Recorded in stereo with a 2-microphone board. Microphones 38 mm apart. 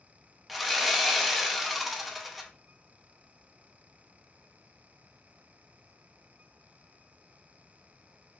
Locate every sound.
0.5 s sawing: 5° right (ahead or behind), 0.5 m